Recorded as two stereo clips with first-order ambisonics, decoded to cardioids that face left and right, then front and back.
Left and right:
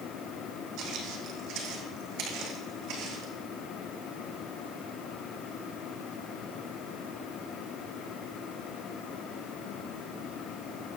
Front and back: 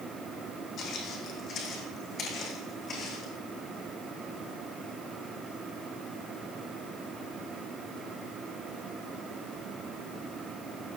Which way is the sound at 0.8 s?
55° right.